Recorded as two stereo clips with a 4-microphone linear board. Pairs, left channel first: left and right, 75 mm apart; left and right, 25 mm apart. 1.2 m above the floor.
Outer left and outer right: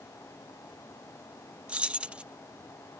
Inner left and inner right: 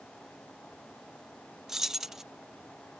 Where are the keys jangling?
15° right (ahead or behind).